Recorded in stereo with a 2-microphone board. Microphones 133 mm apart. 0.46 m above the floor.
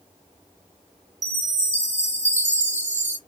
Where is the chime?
65° right (ahead or behind), 1.4 m.